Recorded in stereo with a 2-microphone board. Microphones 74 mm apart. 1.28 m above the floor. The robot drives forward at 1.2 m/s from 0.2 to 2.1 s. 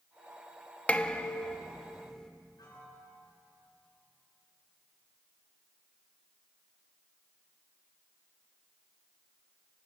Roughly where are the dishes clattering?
Centre.